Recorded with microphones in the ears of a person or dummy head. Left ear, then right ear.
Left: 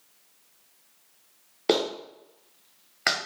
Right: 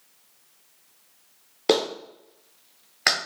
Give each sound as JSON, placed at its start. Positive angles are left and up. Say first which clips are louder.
{"t": 1.7, "sound": "a clap", "louder": "right 2 dB", "side_deg": 0, "distance_m": 0.5}